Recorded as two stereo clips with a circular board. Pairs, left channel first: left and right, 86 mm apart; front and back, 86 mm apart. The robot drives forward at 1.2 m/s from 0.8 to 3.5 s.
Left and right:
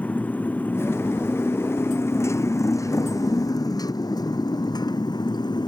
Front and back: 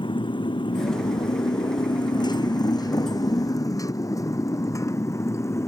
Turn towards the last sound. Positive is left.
turn(degrees=55)